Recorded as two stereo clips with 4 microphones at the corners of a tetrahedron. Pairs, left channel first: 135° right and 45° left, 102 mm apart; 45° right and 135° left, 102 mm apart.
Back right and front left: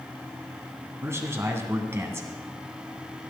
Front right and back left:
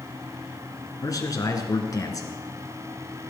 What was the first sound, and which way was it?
A man speaking, 10° right.